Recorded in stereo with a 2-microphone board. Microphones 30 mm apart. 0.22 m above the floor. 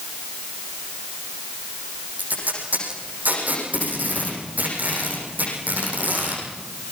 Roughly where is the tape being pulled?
Right.